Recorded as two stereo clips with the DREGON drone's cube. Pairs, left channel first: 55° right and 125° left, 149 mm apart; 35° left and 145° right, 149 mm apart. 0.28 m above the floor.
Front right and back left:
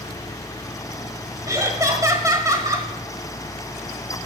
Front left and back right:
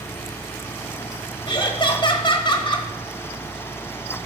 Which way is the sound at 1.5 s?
70° left.